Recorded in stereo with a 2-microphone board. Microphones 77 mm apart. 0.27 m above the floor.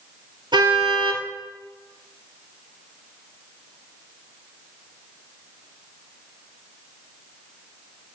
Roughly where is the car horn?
Right.